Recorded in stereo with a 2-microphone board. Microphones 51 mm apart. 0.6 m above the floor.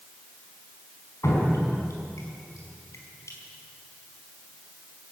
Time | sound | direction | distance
1.2 | dripping | 75° left (ahead or behind) | 5 m